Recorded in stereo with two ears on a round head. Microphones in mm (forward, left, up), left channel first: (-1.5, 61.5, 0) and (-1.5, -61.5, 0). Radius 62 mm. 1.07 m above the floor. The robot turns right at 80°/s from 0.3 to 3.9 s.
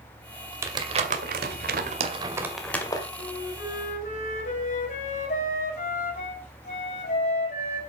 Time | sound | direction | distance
0.6 | crumpling | 20° right (ahead or behind) | 2 m
3.2 | a flute | 65° left | 4.5 m